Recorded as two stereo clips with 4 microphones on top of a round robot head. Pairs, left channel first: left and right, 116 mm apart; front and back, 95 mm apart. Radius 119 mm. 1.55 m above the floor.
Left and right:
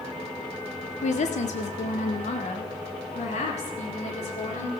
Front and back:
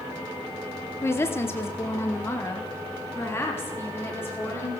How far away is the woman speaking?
About 1.2 m.